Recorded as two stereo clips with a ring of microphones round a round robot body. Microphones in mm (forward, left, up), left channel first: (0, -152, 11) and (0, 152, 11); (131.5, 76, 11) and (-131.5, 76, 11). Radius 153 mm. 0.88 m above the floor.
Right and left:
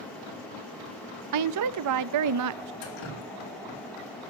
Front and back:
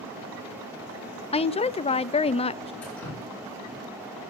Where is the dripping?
85° right, 2.5 m.